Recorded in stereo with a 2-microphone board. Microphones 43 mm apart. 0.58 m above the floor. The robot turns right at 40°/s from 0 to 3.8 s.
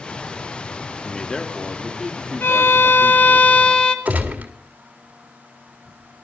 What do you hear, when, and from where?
1.0 s a man speaking: 145° left, 1.2 m; by 3.4 s 120° right, 1.2 m
2.4 s a violin: 100° left, 1.3 m; by 4.0 s 155° left, 1.3 m
4.0 s a gunshot: 40° right (ahead or behind), 2 m